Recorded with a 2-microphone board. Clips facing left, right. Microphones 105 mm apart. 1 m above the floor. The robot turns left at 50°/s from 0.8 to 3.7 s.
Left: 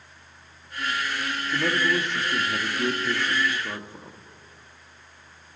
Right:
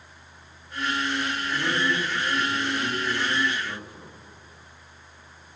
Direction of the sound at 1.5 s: 145° left.